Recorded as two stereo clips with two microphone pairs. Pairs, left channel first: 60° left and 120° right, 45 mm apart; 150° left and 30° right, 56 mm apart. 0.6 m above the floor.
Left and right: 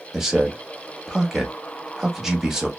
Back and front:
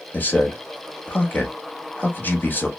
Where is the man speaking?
165° left, 0.8 m.